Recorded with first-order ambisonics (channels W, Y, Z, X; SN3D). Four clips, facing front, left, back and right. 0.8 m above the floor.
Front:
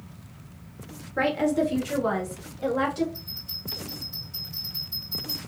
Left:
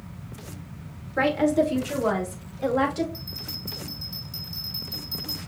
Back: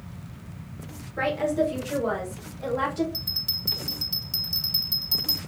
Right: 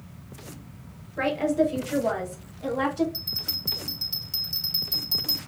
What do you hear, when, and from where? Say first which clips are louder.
1.2 s a woman speaking: left 2 dB, front 1 dB; 55° left, 2.5 m; by 3.0 s 65° left, 3.5 m
3.1 s a bell: right 5 dB, back 8 dB; 150° right, 1.5 m